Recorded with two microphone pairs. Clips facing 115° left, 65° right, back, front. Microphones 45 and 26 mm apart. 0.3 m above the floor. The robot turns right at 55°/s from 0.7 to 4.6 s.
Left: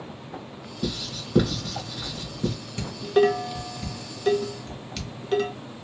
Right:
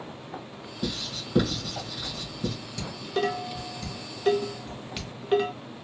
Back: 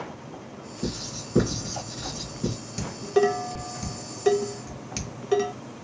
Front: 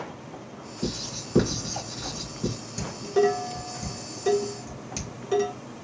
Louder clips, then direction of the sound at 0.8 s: Left 2 dB, front 1 dB; 15° left.